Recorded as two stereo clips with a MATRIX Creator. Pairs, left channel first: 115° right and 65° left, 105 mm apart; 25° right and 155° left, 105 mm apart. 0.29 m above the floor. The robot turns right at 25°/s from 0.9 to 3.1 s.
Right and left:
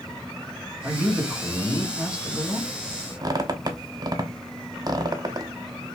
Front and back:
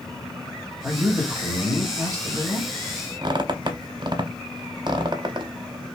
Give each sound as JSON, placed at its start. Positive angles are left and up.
{"t": 0.8, "sound": "a man speaking", "azimuth_deg": 110, "distance_m": 1.2}
{"t": 3.2, "sound": "a squeak", "azimuth_deg": 115, "distance_m": 0.5}